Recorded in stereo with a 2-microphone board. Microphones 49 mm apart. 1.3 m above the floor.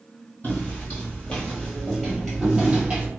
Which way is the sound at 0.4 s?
40° left (ahead or behind).